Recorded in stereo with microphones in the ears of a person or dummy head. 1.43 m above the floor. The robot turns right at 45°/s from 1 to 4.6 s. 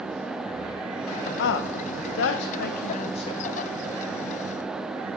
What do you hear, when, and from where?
1.4 s a woman speaking: 65° left (ahead or behind), 0.8 m; by 3.4 s 15° left (ahead or behind), 0.8 m